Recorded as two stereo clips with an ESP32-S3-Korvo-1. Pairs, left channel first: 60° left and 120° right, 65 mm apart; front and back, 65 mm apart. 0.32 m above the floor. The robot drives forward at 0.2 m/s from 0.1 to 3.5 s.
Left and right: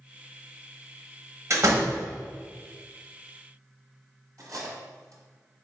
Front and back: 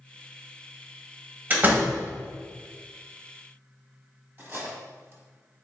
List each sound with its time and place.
1.5 s a door slam: 125° right, 0.9 m; by 2.0 s 130° right, 0.9 m
4.4 s cutlery clinking: 130° right, 1.0 m